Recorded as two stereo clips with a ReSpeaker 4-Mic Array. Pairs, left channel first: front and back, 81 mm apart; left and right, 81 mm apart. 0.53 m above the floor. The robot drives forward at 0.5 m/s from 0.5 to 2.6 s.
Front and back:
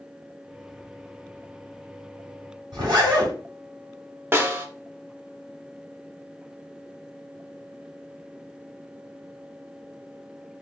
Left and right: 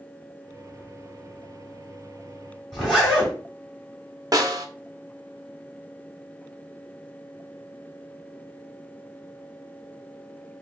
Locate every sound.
2.7 s a zipper: 175° right, 3 m
4.3 s a snare drum: 120° right, 0.7 m